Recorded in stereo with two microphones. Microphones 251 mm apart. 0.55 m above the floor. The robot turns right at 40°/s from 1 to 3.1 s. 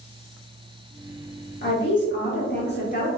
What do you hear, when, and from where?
1.6 s a woman speaking: 75° left, 1.2 m; by 3.1 s 135° left, 1.2 m